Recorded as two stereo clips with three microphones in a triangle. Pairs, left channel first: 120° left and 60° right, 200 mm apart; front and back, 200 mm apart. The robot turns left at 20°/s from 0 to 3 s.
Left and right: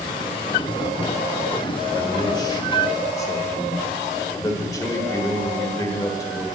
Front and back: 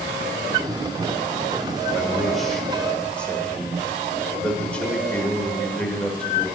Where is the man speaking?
100° left, 1.4 m; by 6.5 s 75° left, 1.4 m.